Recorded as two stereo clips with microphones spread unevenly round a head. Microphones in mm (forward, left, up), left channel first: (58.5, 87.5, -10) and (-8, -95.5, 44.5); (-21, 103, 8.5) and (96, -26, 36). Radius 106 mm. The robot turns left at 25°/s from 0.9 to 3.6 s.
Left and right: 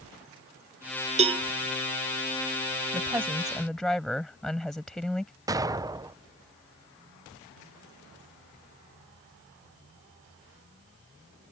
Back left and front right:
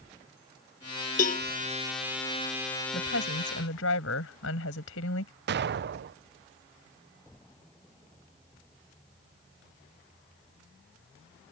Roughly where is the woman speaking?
Behind.